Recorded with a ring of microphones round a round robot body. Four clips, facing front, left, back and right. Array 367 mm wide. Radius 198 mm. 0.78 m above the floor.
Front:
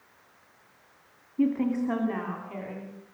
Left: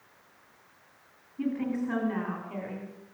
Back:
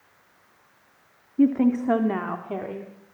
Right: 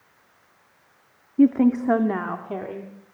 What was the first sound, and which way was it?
A woman speaking, 110° right.